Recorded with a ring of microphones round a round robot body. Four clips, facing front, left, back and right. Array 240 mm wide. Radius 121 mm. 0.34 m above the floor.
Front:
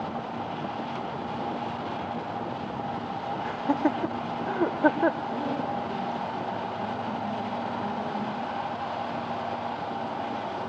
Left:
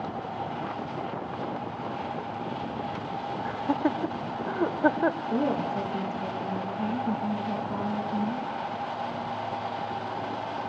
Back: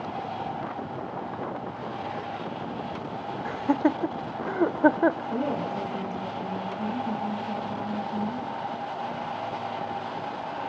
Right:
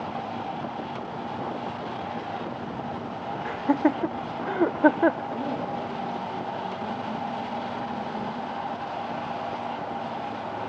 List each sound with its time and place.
3.5 s laughter: 120° right, 0.9 m
5.3 s a woman speaking: 105° left, 9.5 m